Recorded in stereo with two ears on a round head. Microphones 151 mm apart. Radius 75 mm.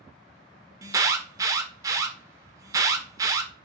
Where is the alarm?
20° right (ahead or behind), 1.0 m.